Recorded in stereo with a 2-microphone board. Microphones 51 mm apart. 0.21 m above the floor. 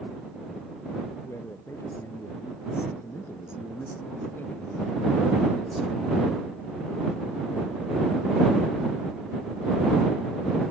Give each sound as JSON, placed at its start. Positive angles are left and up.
{"t": 1.2, "sound": "a man speaking", "side_deg": 65}